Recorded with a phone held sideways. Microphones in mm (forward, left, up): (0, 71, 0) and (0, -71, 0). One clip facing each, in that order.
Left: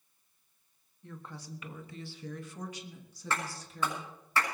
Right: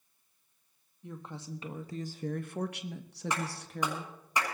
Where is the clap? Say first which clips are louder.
Even; 15° right (ahead or behind), 6.5 m.